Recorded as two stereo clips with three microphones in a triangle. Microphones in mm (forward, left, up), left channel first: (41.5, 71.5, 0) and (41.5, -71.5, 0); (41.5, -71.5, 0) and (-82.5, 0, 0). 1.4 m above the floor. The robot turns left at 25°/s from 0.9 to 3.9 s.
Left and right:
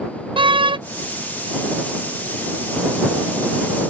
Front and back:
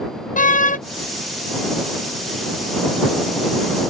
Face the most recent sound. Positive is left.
turn(degrees=-110)